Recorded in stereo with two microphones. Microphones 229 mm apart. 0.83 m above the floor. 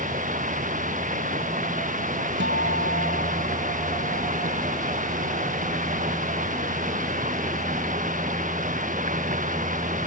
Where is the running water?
35° right (ahead or behind).